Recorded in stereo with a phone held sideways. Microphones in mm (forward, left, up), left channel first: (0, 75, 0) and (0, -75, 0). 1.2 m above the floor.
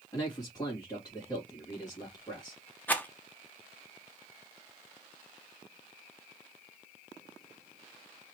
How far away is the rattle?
About 0.9 m.